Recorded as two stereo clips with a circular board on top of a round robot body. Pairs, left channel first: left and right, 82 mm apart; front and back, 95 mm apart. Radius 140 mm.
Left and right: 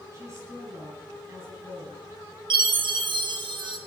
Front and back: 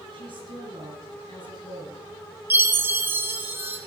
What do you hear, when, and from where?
0.1 s a woman speaking: 145° right, 8.5 m
2.5 s a chime: 110° right, 2 m